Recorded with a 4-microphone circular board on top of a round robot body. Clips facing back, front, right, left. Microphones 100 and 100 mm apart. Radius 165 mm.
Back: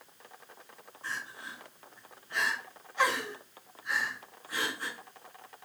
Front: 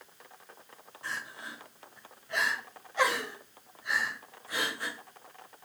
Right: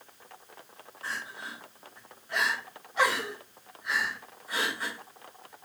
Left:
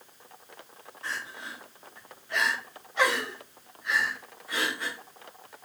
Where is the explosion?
No explosion in this recording.